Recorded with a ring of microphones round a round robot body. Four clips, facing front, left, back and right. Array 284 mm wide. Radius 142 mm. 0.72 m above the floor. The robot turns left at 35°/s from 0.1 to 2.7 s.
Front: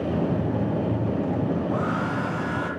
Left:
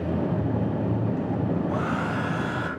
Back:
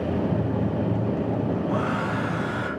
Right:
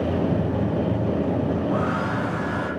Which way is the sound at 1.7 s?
150° left.